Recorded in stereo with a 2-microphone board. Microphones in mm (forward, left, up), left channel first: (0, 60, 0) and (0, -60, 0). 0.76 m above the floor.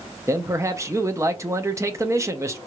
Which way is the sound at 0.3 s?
25° right (ahead or behind).